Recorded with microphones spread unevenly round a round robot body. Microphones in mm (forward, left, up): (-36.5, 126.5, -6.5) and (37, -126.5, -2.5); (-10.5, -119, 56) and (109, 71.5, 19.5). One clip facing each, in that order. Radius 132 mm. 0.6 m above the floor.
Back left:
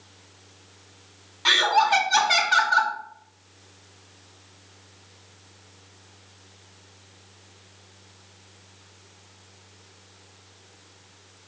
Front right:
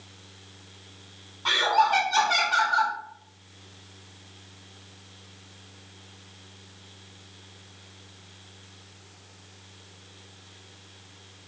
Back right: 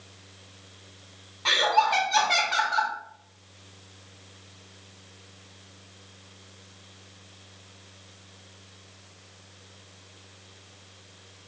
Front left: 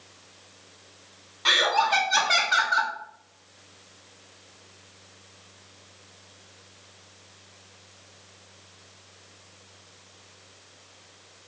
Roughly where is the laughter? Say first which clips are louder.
Back left 1 dB, even; left.